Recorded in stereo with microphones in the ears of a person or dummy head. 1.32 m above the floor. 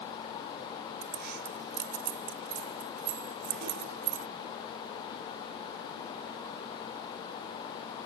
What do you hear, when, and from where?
1.0 s keys jangling: 60° right (ahead or behind)